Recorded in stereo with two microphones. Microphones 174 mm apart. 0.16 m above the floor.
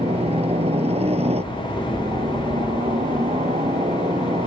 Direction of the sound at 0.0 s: 35° right (ahead or behind).